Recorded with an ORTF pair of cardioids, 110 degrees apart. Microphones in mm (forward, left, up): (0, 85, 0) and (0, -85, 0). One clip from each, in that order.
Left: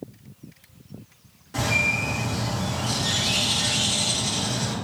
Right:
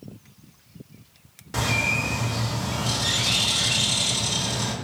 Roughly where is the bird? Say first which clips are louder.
Left 1 dB; ahead right.